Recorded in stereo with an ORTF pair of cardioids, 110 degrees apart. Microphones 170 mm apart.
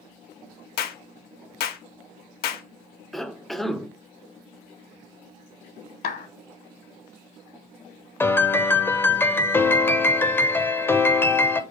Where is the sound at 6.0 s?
60° left, 1.1 m.